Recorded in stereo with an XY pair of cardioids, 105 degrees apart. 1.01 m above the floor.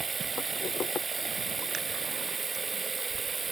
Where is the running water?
30° right.